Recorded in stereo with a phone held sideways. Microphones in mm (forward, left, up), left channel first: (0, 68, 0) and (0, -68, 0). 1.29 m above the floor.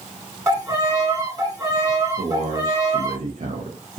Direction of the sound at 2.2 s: 55° right (ahead or behind).